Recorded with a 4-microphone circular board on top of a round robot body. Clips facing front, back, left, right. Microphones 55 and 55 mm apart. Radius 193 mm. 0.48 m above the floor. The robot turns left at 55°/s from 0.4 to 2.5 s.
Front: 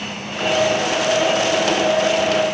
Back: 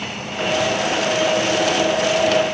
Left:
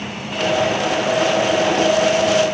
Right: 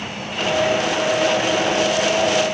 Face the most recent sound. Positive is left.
No sound to turn to.